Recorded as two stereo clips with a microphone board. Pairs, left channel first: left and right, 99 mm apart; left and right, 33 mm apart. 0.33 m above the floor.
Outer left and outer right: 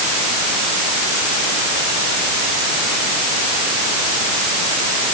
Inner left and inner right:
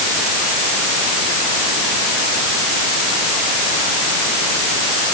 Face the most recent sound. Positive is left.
No sound to turn to.